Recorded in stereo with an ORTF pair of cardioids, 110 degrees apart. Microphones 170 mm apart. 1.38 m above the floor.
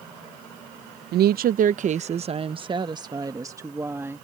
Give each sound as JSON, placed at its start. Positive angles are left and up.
{"t": 1.1, "sound": "a woman speaking", "azimuth_deg": -70}